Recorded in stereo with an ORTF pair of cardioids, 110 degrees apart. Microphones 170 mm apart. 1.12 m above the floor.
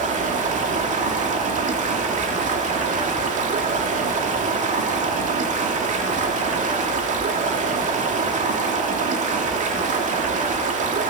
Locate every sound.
0.0 s running water: 45° right, 2.5 m